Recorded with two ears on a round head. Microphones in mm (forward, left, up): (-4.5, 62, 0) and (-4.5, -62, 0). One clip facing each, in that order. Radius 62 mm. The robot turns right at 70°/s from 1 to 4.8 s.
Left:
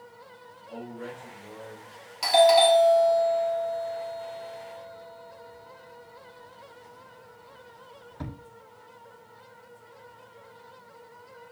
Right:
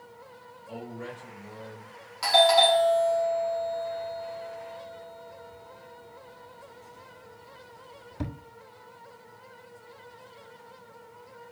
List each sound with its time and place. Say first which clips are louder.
0.7 s a man speaking: even; 15° right, 3 m; by 1.9 s 50° left, 3 m
2.2 s a doorbell: left 3 dB; 25° left (ahead or behind), 1.4 m; by 8.3 s 25° right (ahead or behind), 1.4 m